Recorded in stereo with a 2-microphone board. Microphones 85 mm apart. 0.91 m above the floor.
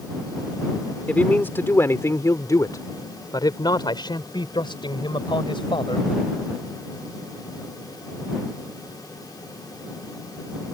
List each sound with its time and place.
1.1 s a man speaking: 20° left (ahead or behind); by 6.1 s 75° left (ahead or behind)